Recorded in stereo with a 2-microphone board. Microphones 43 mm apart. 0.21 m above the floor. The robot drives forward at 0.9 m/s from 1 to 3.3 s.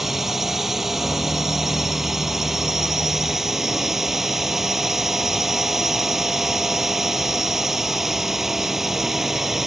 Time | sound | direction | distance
0.0 | a drone | 10° right (ahead or behind) | ?